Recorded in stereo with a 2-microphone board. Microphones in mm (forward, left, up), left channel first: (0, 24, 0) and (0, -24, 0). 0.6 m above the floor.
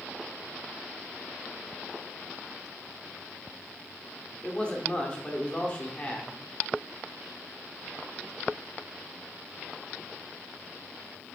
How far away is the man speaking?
About 1.6 m.